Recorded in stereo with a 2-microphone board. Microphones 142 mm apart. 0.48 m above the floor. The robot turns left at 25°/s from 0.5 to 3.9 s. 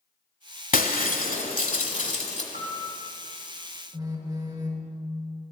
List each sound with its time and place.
0.7 s breaking glass: 95° left, 0.8 m; by 2.4 s 50° left, 0.8 m
2.5 s a piano: 70° right (ahead or behind), 1.6 m; by 3.0 s 80° right, 1.6 m
3.9 s a phone buzzing: 25° right (ahead or behind), 0.9 m